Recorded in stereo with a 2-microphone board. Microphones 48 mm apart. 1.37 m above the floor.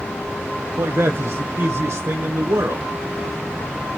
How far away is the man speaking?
About 0.7 m.